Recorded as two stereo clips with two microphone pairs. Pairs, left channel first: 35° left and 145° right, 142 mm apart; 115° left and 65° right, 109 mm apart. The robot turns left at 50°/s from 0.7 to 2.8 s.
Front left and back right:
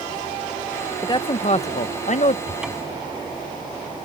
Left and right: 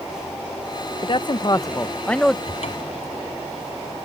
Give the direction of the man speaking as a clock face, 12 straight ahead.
9 o'clock.